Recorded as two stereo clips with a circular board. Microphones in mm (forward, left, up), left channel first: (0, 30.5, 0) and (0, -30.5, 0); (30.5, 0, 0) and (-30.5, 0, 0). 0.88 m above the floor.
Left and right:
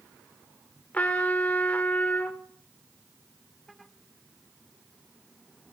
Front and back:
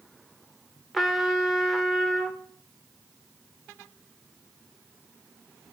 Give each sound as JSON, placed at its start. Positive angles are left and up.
{"t": 0.9, "sound": "a trumpet", "azimuth_deg": 90, "distance_m": 0.7}